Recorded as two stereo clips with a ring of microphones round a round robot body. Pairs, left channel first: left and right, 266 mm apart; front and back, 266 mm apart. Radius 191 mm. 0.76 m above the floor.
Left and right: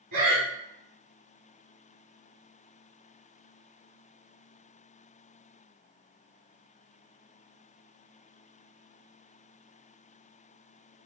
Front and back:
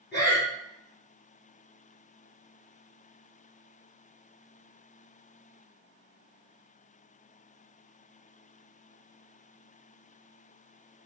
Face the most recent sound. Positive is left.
turn(degrees=-85)